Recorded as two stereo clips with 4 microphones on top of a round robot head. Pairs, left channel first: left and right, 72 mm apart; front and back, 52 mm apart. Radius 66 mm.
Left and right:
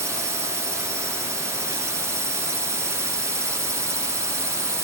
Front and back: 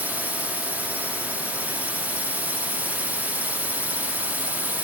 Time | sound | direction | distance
0.0 | a drone | 125° right | ?